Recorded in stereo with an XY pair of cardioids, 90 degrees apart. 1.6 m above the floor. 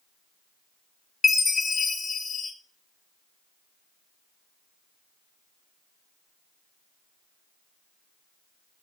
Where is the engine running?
No engine running in this recording.